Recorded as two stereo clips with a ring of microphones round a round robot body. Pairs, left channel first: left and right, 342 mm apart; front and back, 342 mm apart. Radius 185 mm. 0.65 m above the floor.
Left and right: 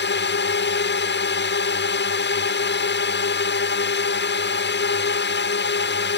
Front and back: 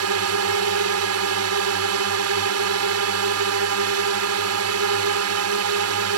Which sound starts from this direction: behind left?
A drone, at 0.0 s.